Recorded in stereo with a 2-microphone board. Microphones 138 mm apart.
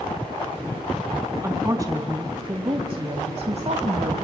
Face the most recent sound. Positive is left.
turn(degrees=-60)  # may be behind; listen again after turning